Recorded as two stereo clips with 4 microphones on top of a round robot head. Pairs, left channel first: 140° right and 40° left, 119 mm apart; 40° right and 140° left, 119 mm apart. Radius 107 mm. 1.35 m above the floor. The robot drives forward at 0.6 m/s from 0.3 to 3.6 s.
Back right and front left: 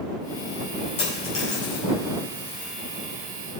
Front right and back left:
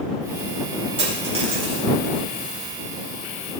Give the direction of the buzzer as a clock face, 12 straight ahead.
No buzzer in this recording.